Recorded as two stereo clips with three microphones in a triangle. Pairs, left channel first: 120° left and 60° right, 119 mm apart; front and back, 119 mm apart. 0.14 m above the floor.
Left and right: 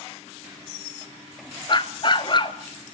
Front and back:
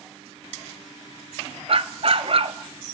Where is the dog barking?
160° left, 1.1 m.